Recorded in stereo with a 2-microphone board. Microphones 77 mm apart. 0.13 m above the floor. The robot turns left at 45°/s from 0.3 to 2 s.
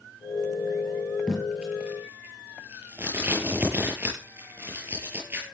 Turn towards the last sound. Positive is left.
turn(degrees=-25)  # may be behind; listen again after turning